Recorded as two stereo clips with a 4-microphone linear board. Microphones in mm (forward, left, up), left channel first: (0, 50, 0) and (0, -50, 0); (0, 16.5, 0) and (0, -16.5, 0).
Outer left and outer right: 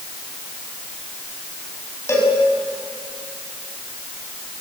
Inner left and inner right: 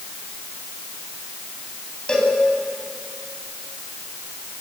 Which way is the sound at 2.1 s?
30° left (ahead or behind).